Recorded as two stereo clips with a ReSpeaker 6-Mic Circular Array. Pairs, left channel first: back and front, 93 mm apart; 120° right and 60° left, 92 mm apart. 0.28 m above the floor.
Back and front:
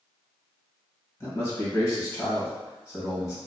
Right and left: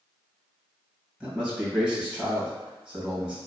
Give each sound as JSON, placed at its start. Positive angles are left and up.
{"t": 1.2, "sound": "a man speaking", "azimuth_deg": 135, "distance_m": 1.8}